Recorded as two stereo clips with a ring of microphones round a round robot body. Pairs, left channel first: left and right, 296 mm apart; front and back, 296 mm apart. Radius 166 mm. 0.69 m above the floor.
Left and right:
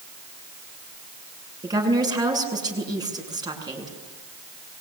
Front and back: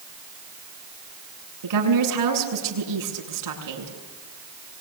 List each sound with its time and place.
1.6 s a woman speaking: 165° right, 7.5 m